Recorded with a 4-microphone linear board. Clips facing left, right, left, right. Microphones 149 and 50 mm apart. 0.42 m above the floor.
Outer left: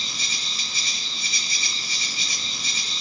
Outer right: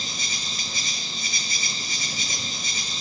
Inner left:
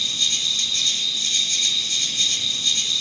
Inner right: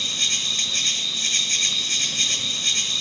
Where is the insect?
45° right (ahead or behind), 0.7 m.